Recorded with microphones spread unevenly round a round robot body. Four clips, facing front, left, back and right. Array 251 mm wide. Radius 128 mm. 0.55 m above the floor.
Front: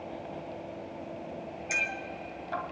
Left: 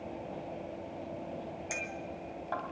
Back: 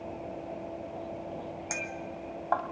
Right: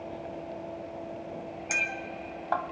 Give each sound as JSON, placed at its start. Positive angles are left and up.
{"t": 1.7, "sound": "a clink", "azimuth_deg": -145, "distance_m": 2.5}